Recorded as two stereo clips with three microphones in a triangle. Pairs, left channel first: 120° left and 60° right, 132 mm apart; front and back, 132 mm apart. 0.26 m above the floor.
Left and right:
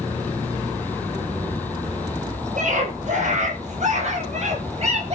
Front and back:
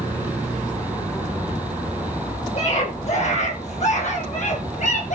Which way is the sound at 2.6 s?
35° right.